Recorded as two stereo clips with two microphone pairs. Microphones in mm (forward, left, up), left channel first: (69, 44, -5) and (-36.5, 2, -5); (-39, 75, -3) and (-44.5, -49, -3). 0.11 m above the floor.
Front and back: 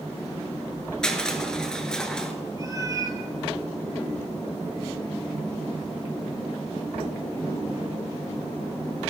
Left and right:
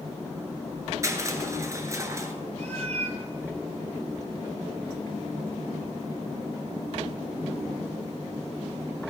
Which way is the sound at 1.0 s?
55° right.